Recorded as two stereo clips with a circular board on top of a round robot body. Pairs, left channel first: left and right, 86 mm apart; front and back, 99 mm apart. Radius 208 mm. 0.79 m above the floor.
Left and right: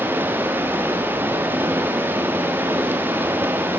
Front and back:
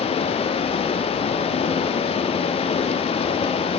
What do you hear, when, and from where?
0.0 s running water: 20° right, 1.0 m